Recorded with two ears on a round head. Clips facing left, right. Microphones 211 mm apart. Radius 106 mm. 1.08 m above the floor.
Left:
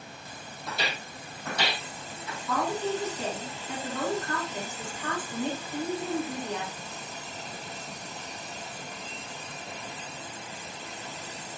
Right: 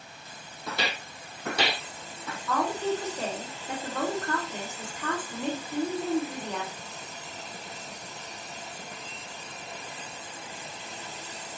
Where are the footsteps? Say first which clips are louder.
Right 2 dB; 50° right (ahead or behind), 1.6 m.